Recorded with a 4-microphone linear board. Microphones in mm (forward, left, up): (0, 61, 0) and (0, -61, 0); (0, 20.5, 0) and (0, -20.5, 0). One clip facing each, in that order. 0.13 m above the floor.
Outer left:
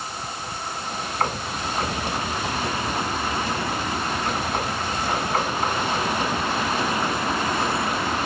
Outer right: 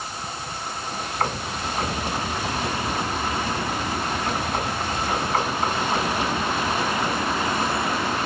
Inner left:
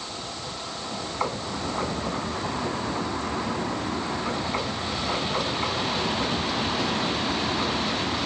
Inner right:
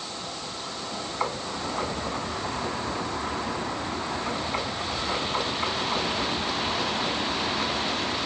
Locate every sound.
Only background noise.